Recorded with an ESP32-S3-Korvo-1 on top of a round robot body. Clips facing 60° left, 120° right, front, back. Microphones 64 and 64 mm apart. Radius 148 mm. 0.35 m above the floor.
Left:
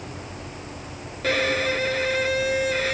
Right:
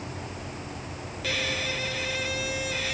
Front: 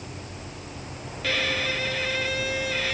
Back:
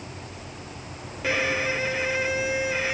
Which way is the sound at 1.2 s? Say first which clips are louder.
Left 8 dB, back 2 dB; 110° left.